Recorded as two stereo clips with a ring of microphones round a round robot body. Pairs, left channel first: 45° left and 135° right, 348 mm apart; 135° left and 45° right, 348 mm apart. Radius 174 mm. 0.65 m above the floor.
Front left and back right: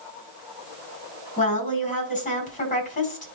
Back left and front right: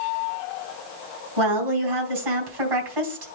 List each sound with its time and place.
1.4 s a woman speaking: 25° right, 4.5 m